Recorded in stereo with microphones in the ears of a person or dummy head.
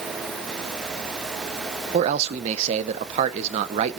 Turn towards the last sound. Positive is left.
turn(degrees=-35)  # may be behind; listen again after turning